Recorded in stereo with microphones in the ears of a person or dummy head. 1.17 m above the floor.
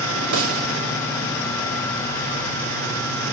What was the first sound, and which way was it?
A snare drum, 85° right.